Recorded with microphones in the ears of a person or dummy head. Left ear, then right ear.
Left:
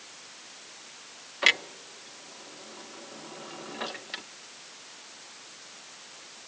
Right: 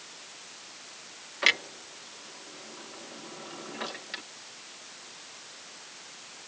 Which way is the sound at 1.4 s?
10° left (ahead or behind).